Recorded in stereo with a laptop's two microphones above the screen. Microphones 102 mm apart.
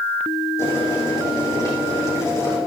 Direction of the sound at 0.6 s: 30° left (ahead or behind).